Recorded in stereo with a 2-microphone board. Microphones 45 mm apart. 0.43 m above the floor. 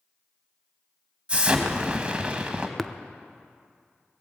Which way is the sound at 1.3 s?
25° right (ahead or behind).